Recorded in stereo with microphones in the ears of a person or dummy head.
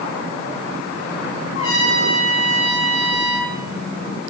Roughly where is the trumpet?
Left.